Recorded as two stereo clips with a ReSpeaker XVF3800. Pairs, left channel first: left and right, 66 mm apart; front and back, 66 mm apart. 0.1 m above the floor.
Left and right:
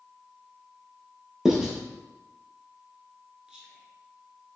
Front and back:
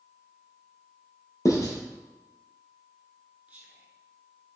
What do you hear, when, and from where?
1.4 s writing: 10° right, 1.1 m
3.5 s whispering: 150° right, 1.5 m